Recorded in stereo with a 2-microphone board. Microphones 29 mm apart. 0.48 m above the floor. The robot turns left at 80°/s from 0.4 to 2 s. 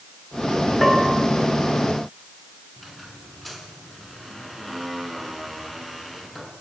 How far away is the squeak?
About 4 m.